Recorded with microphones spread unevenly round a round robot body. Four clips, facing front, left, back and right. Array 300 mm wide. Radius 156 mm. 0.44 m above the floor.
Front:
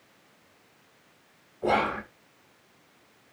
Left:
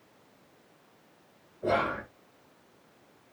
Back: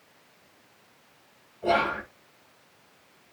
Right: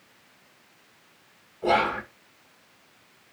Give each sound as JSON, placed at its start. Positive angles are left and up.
{"t": 1.6, "sound": "whispering", "azimuth_deg": -20, "distance_m": 1.4}